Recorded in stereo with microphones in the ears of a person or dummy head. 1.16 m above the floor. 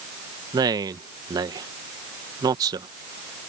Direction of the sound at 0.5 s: 20° right (ahead or behind).